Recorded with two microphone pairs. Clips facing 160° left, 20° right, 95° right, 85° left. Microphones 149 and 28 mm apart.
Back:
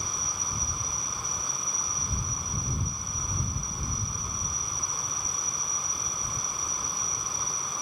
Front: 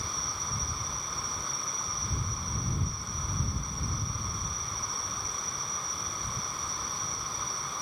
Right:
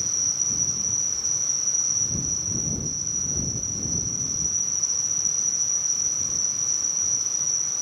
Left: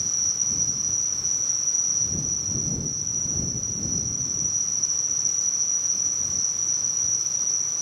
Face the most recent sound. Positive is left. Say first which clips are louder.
# back 1 dB, even
turn(degrees=160)